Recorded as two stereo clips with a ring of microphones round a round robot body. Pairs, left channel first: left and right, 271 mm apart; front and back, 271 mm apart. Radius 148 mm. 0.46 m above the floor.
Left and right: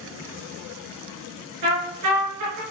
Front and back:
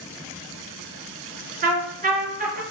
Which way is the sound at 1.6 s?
120° right.